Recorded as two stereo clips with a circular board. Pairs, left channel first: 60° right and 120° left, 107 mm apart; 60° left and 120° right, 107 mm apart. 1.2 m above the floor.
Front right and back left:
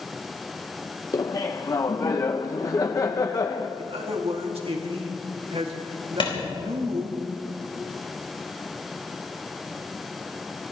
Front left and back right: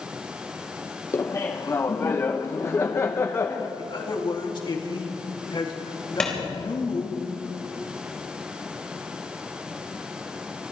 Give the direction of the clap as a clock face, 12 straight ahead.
1 o'clock.